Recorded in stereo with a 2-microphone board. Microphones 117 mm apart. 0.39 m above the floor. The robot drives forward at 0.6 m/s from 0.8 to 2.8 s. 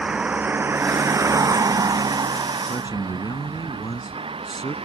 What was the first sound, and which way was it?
A vehicle, 10° right (ahead or behind).